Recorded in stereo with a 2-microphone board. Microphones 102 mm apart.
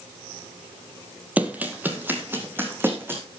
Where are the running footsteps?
15° right (ahead or behind), 1.8 m; by 3.2 s 20° right (ahead or behind), 4 m.